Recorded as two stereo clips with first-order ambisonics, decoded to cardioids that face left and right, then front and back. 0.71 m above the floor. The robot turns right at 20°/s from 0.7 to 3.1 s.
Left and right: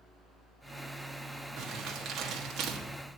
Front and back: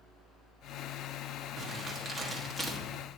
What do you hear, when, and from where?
1.6 s crumpling: 130° right, 1.3 m; by 2.8 s 105° right, 1.3 m